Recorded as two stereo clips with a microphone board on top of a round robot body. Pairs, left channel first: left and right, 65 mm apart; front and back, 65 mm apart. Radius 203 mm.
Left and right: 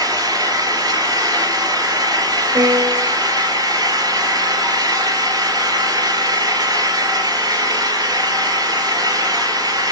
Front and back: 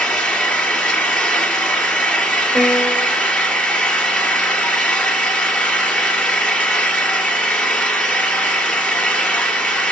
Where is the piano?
80° right, 2.5 m.